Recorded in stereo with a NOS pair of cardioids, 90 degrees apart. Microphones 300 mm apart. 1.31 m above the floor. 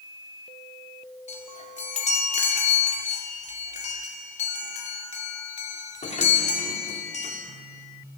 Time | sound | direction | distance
1.3 | a chime | 25° left | 4.5 m